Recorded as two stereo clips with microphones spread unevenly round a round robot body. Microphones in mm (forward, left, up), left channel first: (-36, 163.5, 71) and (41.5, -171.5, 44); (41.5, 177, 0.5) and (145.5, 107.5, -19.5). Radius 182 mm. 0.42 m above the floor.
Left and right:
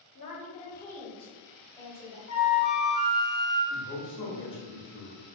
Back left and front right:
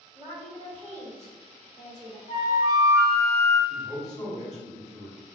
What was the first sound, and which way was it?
A woman speaking, 150° left.